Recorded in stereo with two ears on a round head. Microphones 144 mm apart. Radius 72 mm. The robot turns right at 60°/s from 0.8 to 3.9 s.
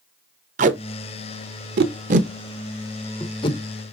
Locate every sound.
0.6 s tape being pulled: 50° right (ahead or behind), 0.9 m; by 3.6 s 40° left (ahead or behind), 0.9 m